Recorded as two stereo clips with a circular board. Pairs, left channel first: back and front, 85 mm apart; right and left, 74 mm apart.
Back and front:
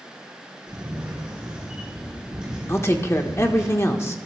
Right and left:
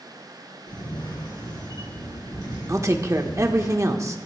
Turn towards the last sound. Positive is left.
turn(degrees=130)